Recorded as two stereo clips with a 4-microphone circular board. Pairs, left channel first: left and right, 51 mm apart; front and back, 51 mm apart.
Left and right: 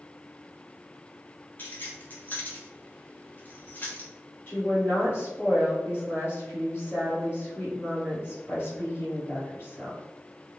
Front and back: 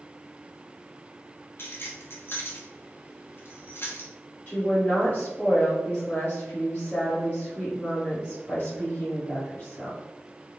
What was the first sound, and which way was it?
Keys jangling, 35° left.